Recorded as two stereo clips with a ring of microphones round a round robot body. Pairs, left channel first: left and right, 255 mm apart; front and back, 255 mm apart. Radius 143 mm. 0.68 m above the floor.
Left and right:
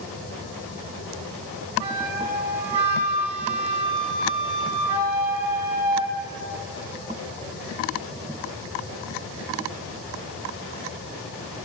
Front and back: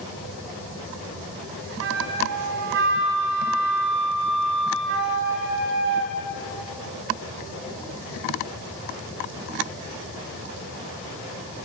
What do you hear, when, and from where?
1.8 s a flute: 140° right, 1.4 m